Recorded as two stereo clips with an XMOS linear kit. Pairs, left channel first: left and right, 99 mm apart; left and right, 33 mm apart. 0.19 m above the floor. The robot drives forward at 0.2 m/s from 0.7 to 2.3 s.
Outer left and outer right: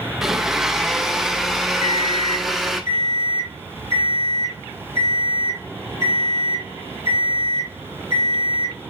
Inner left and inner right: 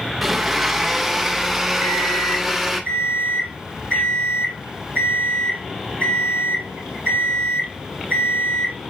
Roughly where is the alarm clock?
Left.